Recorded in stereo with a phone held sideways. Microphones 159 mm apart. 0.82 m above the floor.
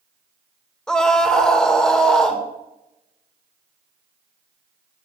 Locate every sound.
0.9 s a scream: 5° left (ahead or behind), 2.5 m